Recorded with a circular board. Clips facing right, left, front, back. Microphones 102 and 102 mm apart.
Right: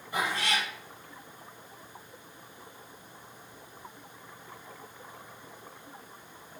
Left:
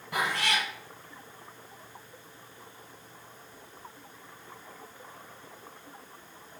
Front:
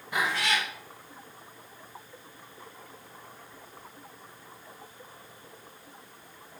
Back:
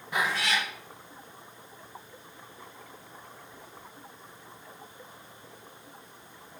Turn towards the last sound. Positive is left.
turn(degrees=90)